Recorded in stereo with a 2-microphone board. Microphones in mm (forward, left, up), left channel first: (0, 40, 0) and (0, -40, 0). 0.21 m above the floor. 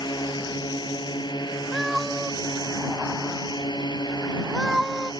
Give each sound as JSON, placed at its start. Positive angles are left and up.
{"t": 0.0, "sound": "a drone", "side_deg": 70}
{"t": 1.7, "sound": "a cat meowing", "side_deg": 0}